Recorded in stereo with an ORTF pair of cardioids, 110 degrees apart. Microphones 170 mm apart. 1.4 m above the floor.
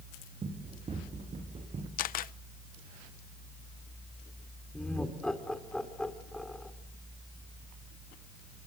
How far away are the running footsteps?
About 6.5 m.